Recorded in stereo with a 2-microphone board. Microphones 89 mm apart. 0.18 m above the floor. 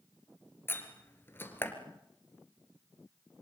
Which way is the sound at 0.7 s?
25° left (ahead or behind).